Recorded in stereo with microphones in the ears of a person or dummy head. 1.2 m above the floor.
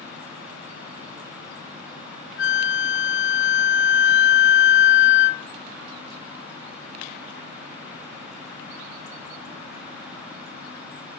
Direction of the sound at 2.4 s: 45° left (ahead or behind).